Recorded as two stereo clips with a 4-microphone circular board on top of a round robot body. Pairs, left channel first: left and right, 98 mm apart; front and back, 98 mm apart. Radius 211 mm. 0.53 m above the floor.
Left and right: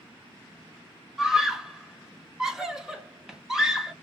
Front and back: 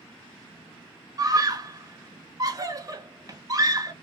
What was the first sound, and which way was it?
A scream, 170° right.